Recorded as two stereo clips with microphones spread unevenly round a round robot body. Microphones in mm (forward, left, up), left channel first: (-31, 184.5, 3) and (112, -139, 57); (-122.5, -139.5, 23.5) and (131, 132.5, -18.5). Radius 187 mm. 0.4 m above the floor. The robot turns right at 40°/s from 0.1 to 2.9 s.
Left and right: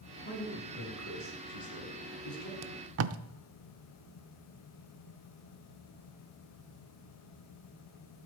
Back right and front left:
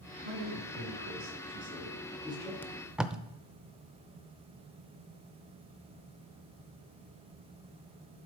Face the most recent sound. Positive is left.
turn(degrees=-30)